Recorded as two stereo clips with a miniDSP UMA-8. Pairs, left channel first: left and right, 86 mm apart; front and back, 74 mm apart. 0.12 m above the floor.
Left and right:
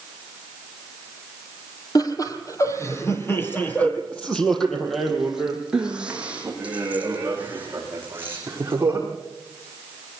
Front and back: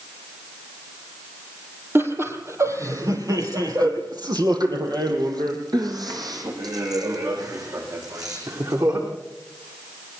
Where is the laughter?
125° left, 4.5 m; by 9.1 s 150° right, 9.5 m.